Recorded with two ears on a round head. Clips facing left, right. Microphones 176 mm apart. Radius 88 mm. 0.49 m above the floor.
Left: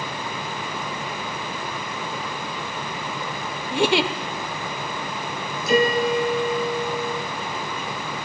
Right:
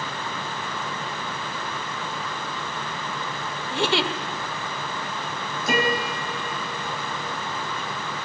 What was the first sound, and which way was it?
A giggle, 15° left (ahead or behind).